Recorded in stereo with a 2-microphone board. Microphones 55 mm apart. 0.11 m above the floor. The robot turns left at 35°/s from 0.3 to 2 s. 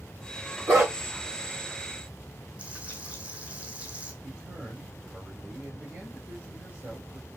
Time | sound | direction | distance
0.7 | a dog barking | 75° right (ahead or behind) | 4.5 m
2.6 | frying | 25° right (ahead or behind) | 2 m
4.2 | a man speaking | 25° right (ahead or behind) | 4 m